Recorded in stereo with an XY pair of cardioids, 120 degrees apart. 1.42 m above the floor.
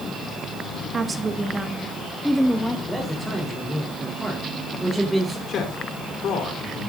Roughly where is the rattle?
I don't hear a rattle.